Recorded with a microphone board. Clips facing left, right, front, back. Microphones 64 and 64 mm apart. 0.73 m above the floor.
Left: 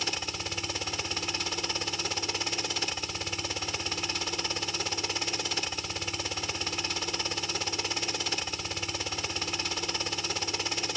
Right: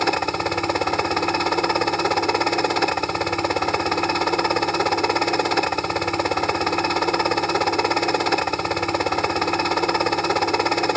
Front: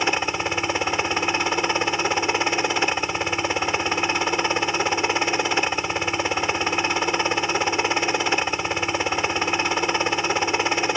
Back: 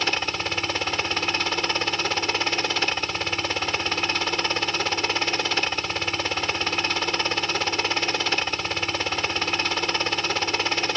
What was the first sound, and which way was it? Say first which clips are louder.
A helicopter: right 15 dB, front 3 dB; 70° right.